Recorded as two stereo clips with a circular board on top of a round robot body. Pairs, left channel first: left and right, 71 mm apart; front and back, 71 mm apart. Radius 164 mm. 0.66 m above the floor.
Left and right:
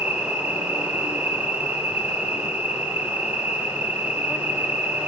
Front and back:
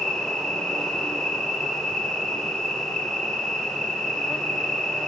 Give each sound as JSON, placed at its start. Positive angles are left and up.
{"t": 0.0, "sound": "an insect", "azimuth_deg": -75, "distance_m": 1.0}